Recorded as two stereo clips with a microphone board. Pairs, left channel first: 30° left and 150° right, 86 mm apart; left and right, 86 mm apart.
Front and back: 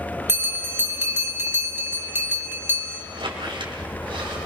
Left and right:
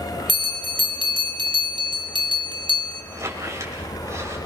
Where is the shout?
I don't hear a shout.